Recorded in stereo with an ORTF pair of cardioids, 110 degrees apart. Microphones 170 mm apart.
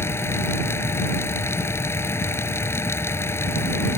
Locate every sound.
0.0 s a fan: 15° left